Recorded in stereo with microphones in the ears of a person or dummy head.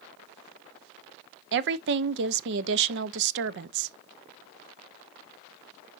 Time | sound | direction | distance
1.5 | a woman speaking | 60° right (ahead or behind) | 0.8 m